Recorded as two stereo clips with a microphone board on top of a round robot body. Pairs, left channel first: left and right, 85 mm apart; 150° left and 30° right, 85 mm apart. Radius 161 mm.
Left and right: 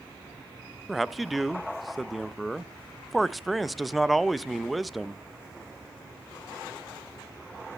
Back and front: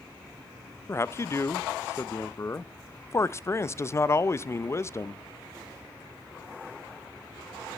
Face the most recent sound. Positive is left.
turn(degrees=180)